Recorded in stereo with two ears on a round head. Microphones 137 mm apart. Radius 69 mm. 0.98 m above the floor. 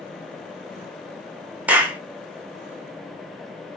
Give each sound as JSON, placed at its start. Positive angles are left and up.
{"t": 1.7, "sound": "a clap", "side_deg": -10, "distance_m": 0.6}